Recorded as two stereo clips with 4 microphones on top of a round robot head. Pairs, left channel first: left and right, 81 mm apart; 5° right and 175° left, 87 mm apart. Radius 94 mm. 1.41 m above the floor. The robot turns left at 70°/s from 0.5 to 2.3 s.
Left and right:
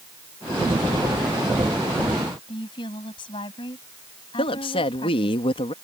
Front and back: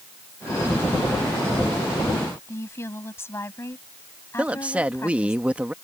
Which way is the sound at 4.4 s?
100° left.